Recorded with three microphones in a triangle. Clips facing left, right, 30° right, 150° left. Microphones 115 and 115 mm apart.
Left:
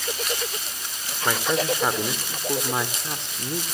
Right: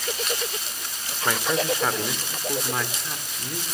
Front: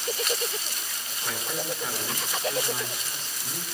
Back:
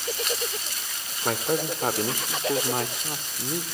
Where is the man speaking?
175° left, 2.5 m; by 3.6 s 140° left, 2 m.